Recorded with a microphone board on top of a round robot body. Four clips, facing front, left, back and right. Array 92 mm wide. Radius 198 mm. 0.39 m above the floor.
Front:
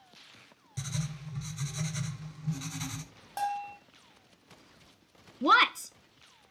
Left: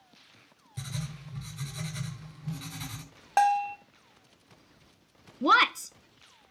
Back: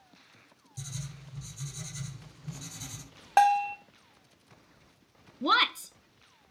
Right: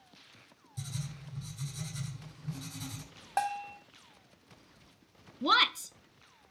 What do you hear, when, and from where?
0.8 s writing: 40° left, 2 m
3.4 s a bell: 160° left, 1.2 m
5.4 s a woman speaking: 60° left, 0.8 m